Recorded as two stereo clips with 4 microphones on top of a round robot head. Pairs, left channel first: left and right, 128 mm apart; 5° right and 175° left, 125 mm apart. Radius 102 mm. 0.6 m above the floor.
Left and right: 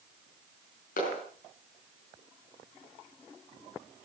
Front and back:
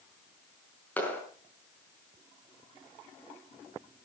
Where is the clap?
75° left, 5.5 m.